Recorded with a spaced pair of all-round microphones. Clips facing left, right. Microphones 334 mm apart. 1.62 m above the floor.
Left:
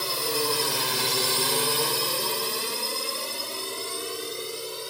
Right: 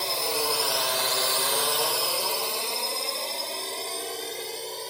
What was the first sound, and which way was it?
A drone, 20° left (ahead or behind).